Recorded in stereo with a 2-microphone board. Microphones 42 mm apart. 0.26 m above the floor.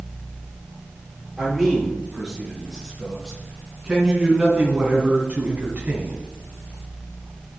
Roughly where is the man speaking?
Centre.